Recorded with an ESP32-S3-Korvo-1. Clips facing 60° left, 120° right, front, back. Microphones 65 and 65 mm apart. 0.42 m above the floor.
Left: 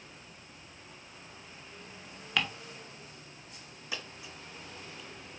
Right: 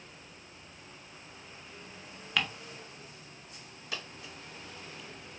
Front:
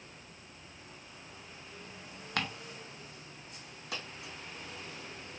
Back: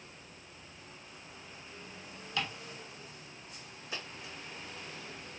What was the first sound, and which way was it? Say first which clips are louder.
Ticking: even, front 1 dB; 30° right.